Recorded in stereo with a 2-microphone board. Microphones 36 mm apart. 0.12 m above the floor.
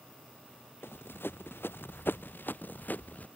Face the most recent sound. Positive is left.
turn(degrees=45)  # may be behind; listen again after turning